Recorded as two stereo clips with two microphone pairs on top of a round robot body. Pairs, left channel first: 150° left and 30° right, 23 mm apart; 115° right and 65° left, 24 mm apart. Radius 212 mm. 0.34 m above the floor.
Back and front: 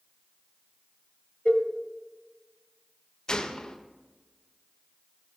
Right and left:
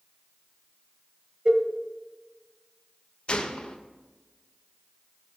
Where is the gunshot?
160° right, 1.3 m.